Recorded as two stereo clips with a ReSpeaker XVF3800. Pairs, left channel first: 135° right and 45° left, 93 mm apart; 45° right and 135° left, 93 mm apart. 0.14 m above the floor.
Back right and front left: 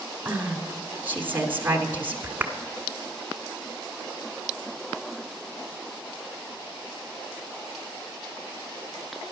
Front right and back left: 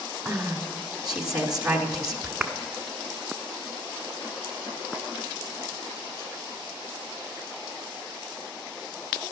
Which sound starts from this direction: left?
A woman speaking, at 0.2 s.